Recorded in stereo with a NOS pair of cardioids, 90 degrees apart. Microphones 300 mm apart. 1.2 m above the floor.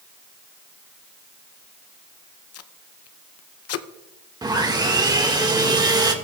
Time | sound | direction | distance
2.5 | tape being pulled | 55° left | 0.7 m
4.4 | sawing | 15° right | 1.8 m